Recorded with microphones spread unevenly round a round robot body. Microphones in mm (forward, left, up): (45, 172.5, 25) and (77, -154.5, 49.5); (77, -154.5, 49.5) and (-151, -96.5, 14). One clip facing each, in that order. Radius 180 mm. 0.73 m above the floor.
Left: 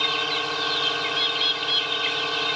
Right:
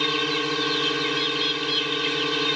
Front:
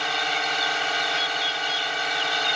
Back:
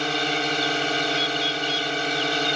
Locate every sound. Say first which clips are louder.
0.0 s a drone: right 6 dB, back 6 dB; 145° right
1.1 s a bird: right 6 dB, back 6 dB; 120° left